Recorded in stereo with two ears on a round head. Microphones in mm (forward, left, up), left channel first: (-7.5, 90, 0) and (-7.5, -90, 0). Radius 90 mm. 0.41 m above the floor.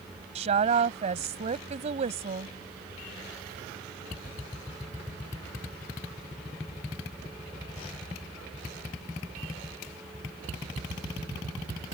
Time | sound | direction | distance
0.3 | a woman speaking | 35° right (ahead or behind) | ?